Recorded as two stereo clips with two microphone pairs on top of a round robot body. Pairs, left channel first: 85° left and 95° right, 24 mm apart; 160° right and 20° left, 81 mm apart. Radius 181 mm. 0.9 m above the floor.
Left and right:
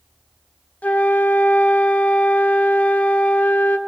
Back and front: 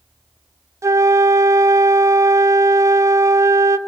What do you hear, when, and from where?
0.8 s a flute: 80° left, 0.6 m